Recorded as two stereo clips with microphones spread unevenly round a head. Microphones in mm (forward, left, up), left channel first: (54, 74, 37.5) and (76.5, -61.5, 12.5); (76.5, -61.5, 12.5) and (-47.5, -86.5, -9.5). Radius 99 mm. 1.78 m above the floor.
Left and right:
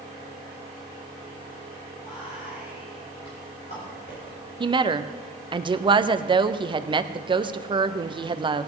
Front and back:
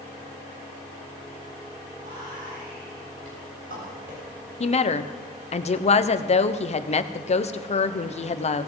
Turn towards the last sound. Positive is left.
turn(degrees=-20)